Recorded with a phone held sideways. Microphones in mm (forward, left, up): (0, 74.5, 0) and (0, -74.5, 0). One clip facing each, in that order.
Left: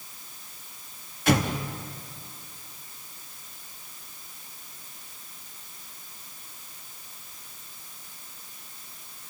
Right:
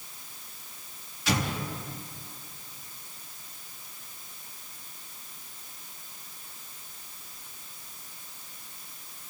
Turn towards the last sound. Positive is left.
turn(degrees=55)  # may be behind; listen again after turning